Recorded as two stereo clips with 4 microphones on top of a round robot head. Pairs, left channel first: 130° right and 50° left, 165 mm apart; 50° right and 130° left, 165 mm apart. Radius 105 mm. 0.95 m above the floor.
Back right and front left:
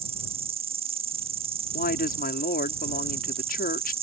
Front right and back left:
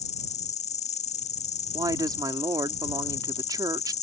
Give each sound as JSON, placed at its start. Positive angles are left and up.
{"t": 0.0, "sound": "an insect", "azimuth_deg": -5}
{"t": 1.7, "sound": "a woman speaking", "azimuth_deg": -165}